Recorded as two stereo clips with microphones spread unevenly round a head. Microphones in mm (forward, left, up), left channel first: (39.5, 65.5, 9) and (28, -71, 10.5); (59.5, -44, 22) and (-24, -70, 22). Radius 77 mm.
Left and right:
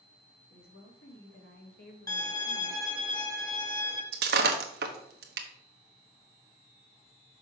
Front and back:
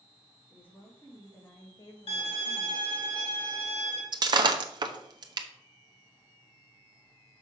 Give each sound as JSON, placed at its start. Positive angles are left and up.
{"t": 0.5, "sound": "a woman speaking", "azimuth_deg": 95, "distance_m": 2.5}
{"t": 2.1, "sound": "a violin", "azimuth_deg": 20, "distance_m": 3.0}
{"t": 4.1, "sound": "breaking glass", "azimuth_deg": -125, "distance_m": 1.0}